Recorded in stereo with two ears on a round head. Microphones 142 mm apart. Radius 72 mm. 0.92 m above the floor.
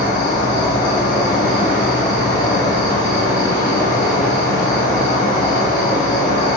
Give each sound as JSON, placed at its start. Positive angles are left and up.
{"t": 0.0, "sound": "an insect", "side_deg": 30, "distance_m": 1.5}